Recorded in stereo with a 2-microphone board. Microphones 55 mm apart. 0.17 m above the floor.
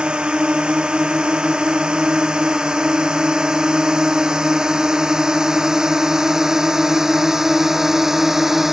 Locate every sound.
0.0 s a drone: 15° right (ahead or behind); by 8.7 s 5° right (ahead or behind)